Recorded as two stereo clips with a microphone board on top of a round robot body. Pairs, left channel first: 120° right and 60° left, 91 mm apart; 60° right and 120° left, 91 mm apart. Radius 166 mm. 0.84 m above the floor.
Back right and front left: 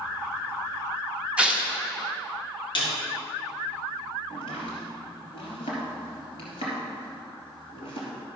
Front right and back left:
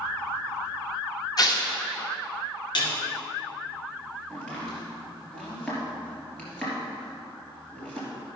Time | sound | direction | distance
1.4 | tearing paper | 15° right | 1.6 m
2.8 | a snare drum | 95° right | 2.5 m
4.3 | chopping | 140° right | 3 m